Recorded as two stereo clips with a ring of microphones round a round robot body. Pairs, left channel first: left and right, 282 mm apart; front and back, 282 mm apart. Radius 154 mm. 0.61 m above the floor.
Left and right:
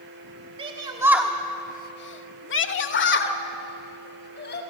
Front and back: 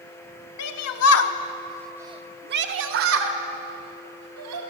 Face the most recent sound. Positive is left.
turn(degrees=140)